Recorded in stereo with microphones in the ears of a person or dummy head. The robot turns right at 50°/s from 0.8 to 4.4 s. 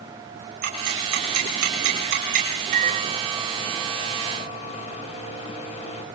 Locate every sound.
0.6 s ticking: 55° right (ahead or behind), 6.5 m; by 2.6 s 35° right (ahead or behind), 6.5 m
2.7 s a microwave: 50° right, 3 m; by 6.0 s 35° left, 3 m